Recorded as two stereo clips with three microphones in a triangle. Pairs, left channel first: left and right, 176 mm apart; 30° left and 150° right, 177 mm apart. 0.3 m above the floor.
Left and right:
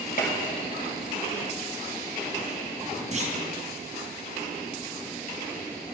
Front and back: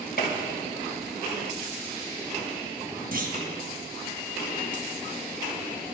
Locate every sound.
0.2 s a gunshot: 55° left, 3 m
3.1 s a clunk: 130° right, 2.5 m